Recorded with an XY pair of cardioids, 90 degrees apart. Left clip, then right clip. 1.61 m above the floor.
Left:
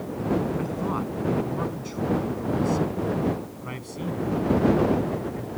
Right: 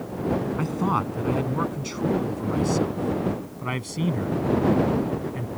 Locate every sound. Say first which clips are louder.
0.6 s a man speaking: right 4 dB; 60° right; by 5.5 s 65° right